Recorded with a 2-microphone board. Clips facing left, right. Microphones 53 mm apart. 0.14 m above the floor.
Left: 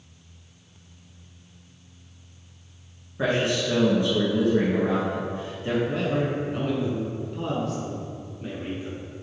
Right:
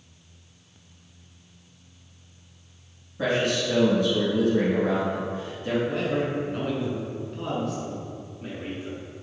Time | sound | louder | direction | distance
3.2 | a man speaking | even | 25° left (ahead or behind) | 1.5 m
5.9 | a man speaking | left 1 dB | centre (ahead or behind) | 1.6 m